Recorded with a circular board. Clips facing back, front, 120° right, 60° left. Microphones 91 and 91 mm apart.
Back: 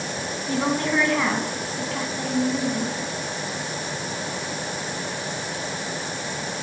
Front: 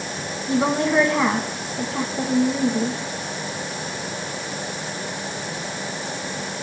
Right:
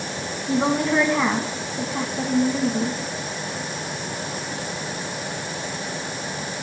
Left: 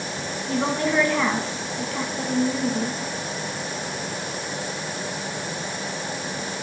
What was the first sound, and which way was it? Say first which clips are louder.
A woman speaking: front 4 dB, right 3 dB; 60° right.